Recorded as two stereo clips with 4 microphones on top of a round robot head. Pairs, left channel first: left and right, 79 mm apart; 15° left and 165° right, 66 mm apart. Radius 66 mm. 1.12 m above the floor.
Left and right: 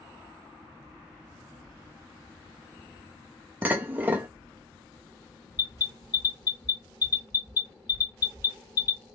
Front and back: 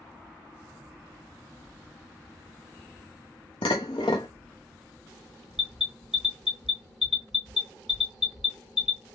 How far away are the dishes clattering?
About 0.5 m.